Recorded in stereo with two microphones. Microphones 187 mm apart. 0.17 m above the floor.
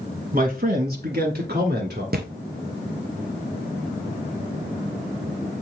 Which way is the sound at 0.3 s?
50° right (ahead or behind).